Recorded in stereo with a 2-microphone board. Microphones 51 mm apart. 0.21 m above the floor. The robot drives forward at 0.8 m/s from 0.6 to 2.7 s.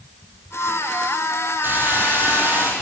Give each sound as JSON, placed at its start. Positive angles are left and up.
{"t": 1.6, "sound": "a hiss", "side_deg": -40, "distance_m": 7.5}